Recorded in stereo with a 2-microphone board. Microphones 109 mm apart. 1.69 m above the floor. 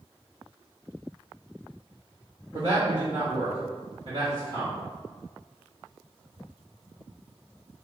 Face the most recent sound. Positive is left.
turn(degrees=-55)  # may be behind; listen again after turning